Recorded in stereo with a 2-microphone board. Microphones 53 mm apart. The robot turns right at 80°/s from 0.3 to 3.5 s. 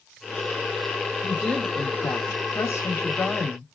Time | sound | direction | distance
1.2 | a woman speaking | 5° right | 1.0 m